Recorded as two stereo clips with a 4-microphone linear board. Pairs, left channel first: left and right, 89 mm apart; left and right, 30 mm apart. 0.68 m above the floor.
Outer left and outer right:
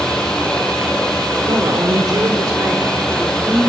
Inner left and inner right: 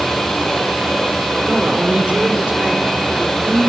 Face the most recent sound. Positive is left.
turn(degrees=-10)  # may be behind; listen again after turning